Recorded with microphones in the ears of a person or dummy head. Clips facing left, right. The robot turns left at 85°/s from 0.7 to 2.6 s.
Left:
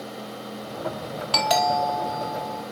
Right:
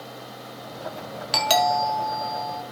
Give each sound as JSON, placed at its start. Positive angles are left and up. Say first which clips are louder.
{"t": 1.3, "sound": "a doorbell", "louder": "even", "azimuth_deg": -15, "distance_m": 4.0}